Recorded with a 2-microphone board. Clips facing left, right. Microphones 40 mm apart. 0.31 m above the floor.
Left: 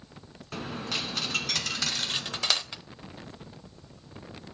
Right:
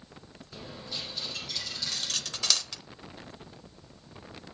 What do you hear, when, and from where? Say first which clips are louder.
0.5 s a dropped coin: left 7 dB; 70° left (ahead or behind), 1.5 m
1.9 s cutlery clinking: left 4 dB; 25° left (ahead or behind), 0.5 m